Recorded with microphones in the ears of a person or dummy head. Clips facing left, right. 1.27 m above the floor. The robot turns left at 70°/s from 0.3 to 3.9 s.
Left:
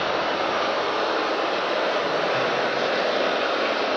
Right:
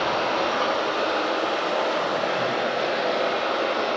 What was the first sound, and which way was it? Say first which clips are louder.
Running water: even; 90° right.